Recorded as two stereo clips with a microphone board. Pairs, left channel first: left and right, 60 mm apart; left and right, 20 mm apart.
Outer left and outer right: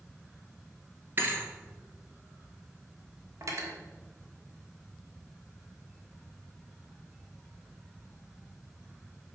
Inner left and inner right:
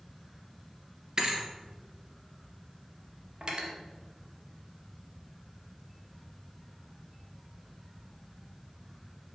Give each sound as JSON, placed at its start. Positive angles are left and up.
{"t": 1.2, "sound": "a thud", "side_deg": -35, "distance_m": 1.2}
{"t": 3.4, "sound": "cutlery clinking", "side_deg": -55, "distance_m": 1.2}